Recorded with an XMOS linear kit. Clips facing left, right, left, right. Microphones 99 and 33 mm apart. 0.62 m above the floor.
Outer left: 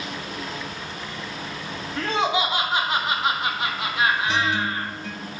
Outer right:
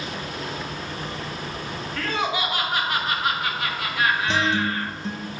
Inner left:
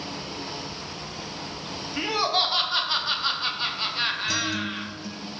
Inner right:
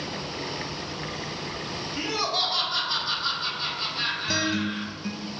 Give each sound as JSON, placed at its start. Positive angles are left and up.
{"t": 2.0, "sound": "laughter", "side_deg": 20, "distance_m": 0.5}
{"t": 4.3, "sound": "a guitar", "side_deg": -30, "distance_m": 0.5}